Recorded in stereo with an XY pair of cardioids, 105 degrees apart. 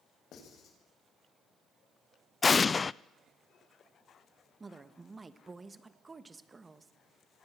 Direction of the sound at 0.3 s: 65° left.